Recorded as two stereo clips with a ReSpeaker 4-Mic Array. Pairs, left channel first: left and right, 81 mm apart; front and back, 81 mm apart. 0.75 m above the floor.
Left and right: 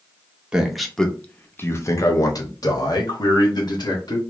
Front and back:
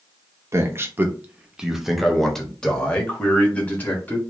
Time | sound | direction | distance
0.5 | a man speaking | 165° right | 0.8 m